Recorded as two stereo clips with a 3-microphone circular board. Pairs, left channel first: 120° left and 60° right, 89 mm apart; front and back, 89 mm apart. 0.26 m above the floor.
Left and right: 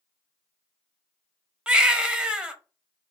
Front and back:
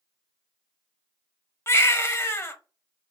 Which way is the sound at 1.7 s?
10° left.